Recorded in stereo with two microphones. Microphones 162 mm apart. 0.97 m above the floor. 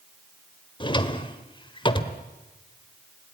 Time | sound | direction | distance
0.8 | a drawer | 30° left (ahead or behind) | 1.4 m